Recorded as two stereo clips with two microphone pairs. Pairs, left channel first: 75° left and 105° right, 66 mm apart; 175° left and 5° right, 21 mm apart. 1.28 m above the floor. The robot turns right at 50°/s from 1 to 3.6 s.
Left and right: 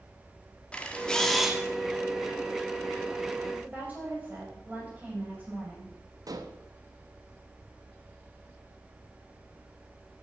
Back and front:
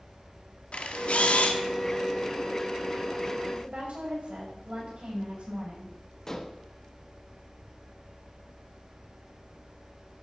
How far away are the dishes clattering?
About 1.2 m.